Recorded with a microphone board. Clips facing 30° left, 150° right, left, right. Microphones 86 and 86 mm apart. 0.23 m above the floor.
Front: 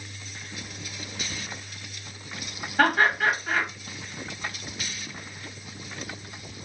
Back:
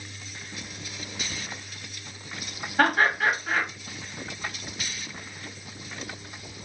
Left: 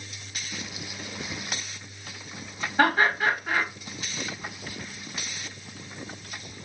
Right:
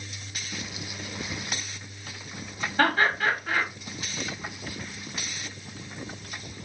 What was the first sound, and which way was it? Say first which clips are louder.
Laughter: front 1 dB, left 1 dB; 130° left.